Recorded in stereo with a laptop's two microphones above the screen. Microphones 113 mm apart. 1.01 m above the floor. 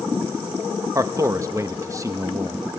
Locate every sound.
0.9 s a man speaking: 30° right (ahead or behind), 1.0 m